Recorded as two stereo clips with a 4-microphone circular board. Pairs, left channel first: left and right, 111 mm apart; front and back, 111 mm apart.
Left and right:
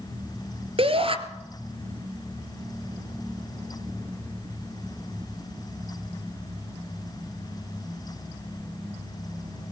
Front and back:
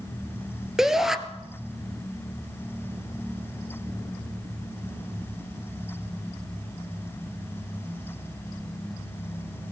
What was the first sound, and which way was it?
A shout, 95° right.